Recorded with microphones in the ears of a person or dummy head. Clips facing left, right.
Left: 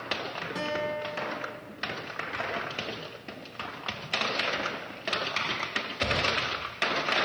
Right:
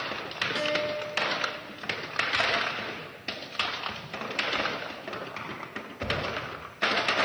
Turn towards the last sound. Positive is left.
turn(degrees=-20)  # may be behind; listen again after turning